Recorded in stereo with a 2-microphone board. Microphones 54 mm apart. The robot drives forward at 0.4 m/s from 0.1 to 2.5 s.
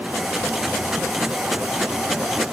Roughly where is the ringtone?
I don't hear a ringtone.